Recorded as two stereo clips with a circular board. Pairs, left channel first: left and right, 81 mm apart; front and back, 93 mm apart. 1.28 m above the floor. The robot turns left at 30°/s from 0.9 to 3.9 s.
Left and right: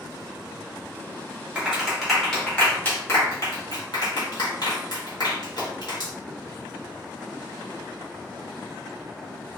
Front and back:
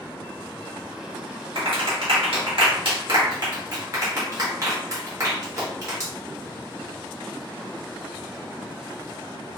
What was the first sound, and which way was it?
A clap, 165° right.